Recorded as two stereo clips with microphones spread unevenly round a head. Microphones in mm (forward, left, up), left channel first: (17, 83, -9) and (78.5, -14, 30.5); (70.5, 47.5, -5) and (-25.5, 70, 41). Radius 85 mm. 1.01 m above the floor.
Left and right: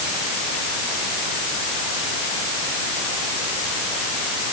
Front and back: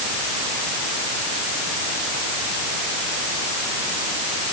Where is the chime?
I don't hear a chime.